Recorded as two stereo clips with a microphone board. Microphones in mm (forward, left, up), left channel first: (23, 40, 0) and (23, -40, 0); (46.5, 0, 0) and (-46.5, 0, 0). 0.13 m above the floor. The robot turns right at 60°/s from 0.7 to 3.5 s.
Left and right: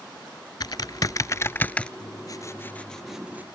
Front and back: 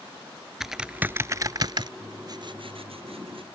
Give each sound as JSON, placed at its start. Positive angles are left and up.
{"t": 0.6, "sound": "typing on a keyboard", "azimuth_deg": 95}
{"t": 2.0, "sound": "writing", "azimuth_deg": 115}